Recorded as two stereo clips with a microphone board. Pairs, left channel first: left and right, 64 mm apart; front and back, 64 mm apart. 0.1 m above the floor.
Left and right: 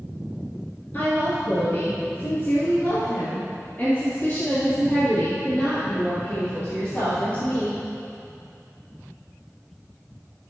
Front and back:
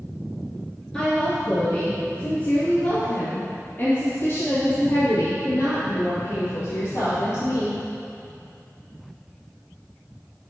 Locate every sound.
0.9 s a woman speaking: 70° left, 2.5 m; by 7.8 s 25° left, 5 m